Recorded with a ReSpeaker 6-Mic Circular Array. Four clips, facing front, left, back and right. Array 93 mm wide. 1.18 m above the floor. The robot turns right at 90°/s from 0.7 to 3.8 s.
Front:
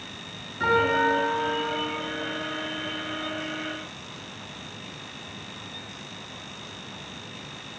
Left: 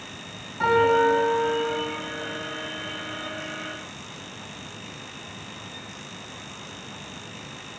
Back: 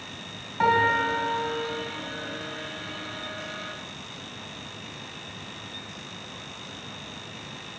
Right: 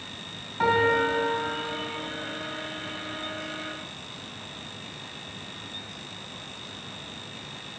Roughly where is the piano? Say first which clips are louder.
Left 4 dB, even; behind.